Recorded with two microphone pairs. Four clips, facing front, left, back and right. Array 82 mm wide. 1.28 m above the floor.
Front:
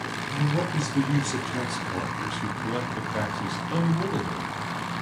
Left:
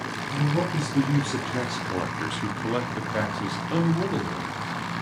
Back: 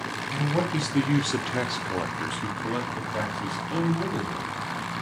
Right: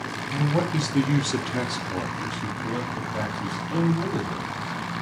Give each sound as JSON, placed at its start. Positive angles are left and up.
{"t": 0.3, "sound": "a man speaking", "azimuth_deg": -130, "distance_m": 0.9}